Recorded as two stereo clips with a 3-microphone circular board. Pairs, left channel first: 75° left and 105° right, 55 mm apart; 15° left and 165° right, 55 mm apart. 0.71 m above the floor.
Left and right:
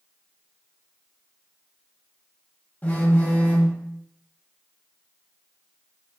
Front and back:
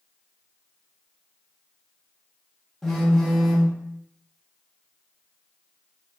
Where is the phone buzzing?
95° left, 1.3 m.